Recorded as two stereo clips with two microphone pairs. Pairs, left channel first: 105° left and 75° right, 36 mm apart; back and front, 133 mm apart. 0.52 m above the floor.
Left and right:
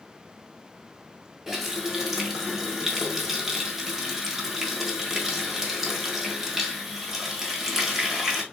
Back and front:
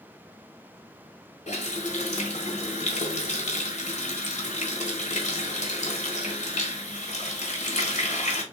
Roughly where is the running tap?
Behind.